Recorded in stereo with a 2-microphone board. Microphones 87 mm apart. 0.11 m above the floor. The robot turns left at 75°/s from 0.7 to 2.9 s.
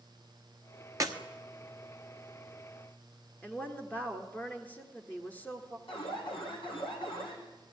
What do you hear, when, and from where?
1.0 s a clap: 40° right (ahead or behind), 1.3 m
3.4 s a woman speaking: 20° left (ahead or behind), 1.9 m
5.9 s an alarm: 75° left (ahead or behind), 4 m